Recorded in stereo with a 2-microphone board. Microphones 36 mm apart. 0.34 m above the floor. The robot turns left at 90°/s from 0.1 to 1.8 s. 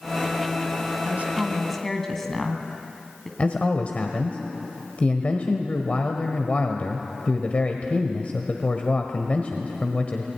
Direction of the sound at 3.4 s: 40° left (ahead or behind).